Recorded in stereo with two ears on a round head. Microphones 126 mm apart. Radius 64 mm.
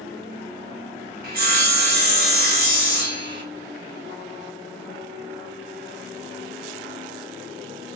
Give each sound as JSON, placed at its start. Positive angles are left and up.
{"t": 1.2, "sound": "sawing", "side_deg": -70, "distance_m": 0.6}